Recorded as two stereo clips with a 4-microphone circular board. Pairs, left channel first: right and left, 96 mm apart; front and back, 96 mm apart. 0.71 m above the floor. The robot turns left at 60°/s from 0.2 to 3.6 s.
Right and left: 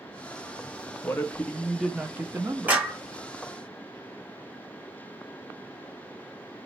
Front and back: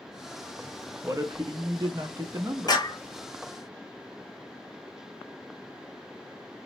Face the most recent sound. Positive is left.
turn(degrees=-35)